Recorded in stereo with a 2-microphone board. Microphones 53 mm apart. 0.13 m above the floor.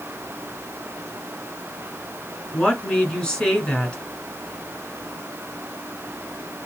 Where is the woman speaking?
15° left (ahead or behind), 1.4 m.